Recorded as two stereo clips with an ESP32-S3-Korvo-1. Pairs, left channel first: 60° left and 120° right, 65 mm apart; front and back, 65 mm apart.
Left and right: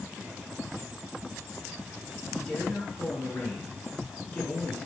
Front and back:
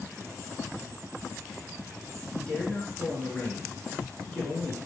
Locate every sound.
2.3 s a man speaking: 45° left, 1.9 m